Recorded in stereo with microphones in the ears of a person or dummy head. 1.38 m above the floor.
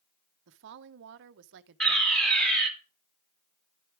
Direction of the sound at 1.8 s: 5° left (ahead or behind).